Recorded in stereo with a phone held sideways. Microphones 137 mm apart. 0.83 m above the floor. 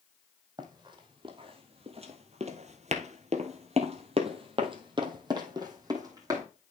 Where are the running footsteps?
30° right (ahead or behind), 2 m; by 6.4 s 25° right (ahead or behind), 3 m.